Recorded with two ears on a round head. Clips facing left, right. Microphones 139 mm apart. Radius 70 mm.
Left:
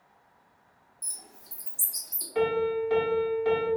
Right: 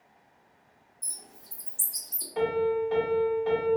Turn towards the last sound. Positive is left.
turn(degrees=80)